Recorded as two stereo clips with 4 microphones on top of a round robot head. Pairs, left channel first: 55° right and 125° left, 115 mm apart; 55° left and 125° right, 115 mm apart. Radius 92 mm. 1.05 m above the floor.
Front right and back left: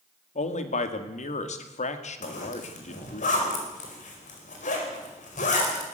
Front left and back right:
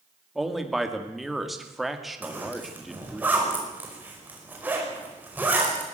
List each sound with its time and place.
0.3 s a man speaking: 35° right, 2 m
2.2 s a zipper: 50° right, 5 m